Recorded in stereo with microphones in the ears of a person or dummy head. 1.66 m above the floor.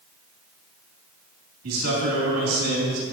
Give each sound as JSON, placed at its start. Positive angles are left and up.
{"t": 1.6, "sound": "a man speaking", "side_deg": -85, "distance_m": 3.0}